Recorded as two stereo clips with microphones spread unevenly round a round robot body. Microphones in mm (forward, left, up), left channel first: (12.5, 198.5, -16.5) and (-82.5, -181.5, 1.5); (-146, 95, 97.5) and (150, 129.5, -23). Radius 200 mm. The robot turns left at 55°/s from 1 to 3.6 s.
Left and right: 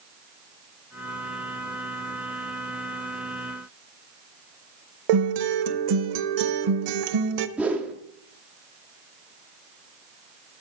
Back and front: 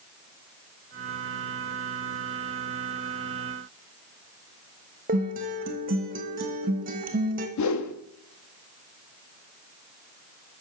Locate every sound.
5.1 s a guitar: 65° right, 0.9 m
7.6 s a whoosh: 170° left, 1.2 m